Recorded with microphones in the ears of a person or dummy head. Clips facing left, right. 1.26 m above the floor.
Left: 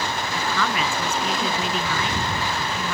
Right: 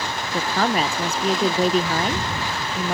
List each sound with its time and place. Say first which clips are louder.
0.3 s a woman speaking: right 5 dB; 30° right (ahead or behind)